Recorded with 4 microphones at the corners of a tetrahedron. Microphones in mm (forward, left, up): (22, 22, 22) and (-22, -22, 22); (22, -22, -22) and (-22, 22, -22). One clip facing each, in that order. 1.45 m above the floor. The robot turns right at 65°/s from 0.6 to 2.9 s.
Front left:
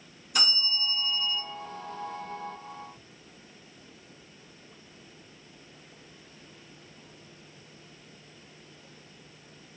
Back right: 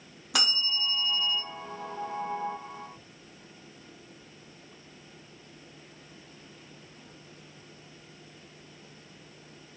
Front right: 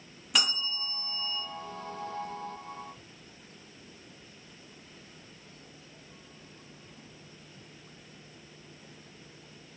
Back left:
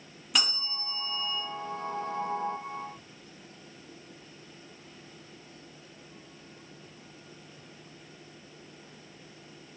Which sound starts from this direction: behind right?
A bell, at 0.3 s.